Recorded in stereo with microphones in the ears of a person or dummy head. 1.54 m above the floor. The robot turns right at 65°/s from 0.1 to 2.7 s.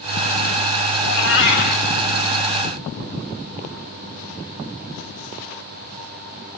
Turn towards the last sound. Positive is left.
turn(degrees=-160)